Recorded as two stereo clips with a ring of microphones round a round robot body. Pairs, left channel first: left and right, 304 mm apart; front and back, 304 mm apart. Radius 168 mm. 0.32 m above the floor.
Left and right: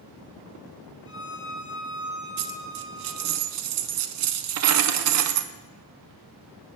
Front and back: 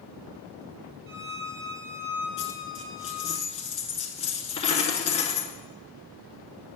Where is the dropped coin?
75° right, 0.6 m.